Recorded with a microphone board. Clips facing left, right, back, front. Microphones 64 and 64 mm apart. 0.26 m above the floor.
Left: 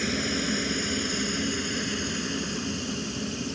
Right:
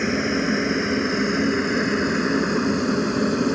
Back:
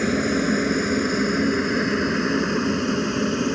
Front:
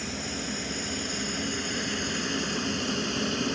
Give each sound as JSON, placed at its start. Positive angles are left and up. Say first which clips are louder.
{"t": 0.0, "sound": "a helicopter", "louder": "right 7 dB, back 14 dB", "azimuth_deg": -150}